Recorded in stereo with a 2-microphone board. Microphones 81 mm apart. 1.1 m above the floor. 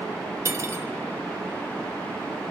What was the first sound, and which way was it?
Cutlery clinking, 35° right (ahead or behind).